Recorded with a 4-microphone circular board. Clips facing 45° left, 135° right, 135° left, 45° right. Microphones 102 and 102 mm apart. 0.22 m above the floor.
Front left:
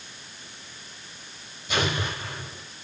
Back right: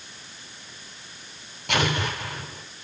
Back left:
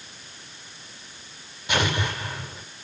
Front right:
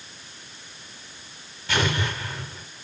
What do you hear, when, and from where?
1.7 s an explosion: 155° right, 8.5 m